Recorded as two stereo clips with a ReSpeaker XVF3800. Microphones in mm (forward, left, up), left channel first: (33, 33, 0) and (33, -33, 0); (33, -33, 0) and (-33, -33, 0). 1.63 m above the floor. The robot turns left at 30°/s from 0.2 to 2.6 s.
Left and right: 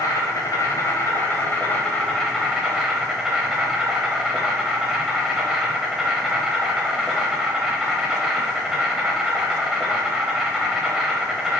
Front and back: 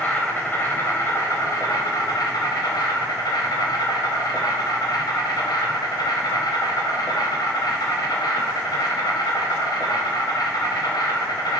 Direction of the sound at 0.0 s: 65° left.